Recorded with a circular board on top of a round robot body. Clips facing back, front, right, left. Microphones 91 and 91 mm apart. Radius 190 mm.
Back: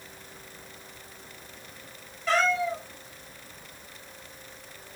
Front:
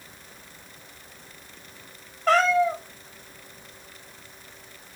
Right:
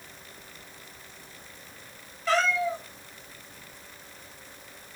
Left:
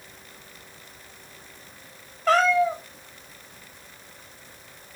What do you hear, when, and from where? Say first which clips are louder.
2.3 s a cat meowing: front 5 dB, left 6 dB; 45° left, 0.6 m